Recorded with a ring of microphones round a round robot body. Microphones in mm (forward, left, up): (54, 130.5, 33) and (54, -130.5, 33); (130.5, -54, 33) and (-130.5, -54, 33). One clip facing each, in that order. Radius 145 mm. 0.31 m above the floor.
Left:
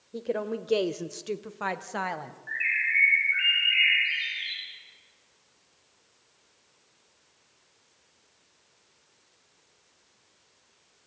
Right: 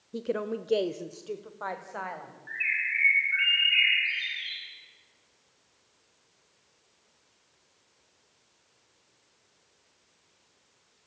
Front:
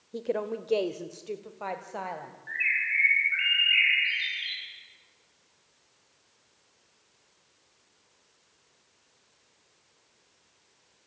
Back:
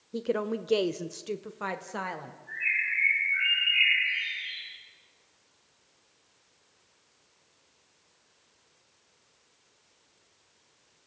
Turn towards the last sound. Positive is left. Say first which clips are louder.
# left 3 dB, front 1 dB
turn(degrees=-5)